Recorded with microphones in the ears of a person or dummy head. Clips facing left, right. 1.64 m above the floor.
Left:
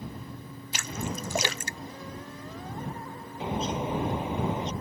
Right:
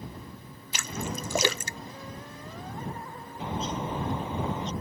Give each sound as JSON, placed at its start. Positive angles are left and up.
{"t": 0.7, "sound": "a splash", "side_deg": -70}
{"t": 3.4, "sound": "a bird", "side_deg": 15}